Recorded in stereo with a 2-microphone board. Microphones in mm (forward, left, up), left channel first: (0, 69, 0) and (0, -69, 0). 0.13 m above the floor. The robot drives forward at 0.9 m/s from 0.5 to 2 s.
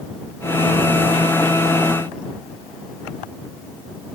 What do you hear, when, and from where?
Only background noise.